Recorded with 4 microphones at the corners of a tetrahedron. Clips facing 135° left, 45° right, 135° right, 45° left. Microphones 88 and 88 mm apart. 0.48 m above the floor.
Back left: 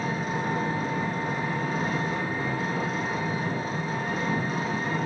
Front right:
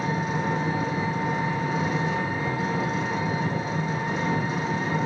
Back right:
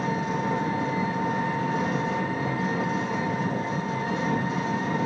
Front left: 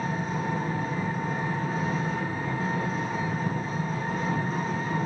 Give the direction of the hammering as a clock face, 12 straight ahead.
No hammering in this recording.